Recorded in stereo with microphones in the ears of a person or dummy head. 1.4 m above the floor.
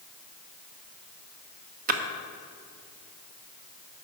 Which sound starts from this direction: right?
A splash, at 1.9 s.